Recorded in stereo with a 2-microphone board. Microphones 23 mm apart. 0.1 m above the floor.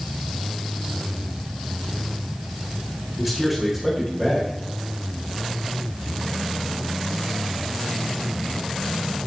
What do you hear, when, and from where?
3.2 s a man speaking: 5° right (ahead or behind), 7.5 m